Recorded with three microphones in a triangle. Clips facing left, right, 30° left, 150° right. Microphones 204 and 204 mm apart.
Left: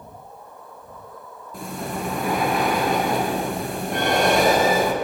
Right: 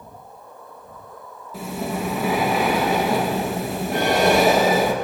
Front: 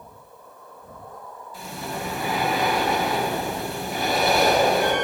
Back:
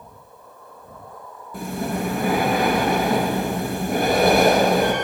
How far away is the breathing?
About 2 m.